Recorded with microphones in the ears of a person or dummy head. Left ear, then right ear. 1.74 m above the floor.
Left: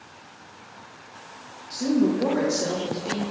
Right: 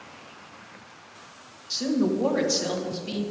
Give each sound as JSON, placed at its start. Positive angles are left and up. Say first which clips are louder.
{"t": 1.7, "sound": "a woman speaking", "louder": "left 2 dB", "side_deg": -40, "distance_m": 1.5}